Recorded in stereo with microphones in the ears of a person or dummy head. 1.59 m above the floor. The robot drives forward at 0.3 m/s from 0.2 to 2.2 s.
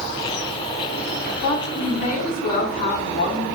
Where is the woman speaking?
60° left (ahead or behind), 1.0 m; by 3.5 s 50° left (ahead or behind), 1.1 m.